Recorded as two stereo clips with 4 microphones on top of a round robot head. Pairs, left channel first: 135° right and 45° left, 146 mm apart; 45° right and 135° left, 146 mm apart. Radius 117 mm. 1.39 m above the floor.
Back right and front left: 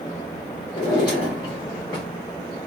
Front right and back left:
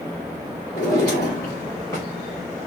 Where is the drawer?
100° right, 0.5 m.